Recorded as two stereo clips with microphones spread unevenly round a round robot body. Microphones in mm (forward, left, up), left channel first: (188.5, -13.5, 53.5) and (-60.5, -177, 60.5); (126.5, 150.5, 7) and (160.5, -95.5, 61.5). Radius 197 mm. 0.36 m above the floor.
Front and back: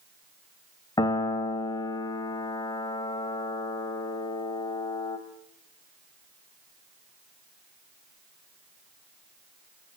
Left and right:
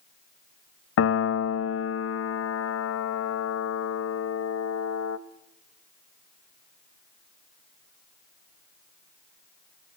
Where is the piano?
110° left, 0.6 m.